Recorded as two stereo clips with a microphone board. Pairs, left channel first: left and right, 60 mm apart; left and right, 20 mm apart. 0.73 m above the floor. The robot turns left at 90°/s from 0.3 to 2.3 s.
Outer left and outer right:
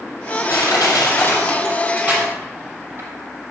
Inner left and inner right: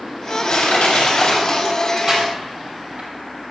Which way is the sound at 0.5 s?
60° left (ahead or behind).